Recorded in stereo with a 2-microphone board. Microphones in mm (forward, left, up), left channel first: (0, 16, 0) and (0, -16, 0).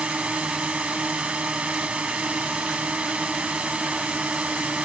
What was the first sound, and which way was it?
A drone, 40° right (ahead or behind).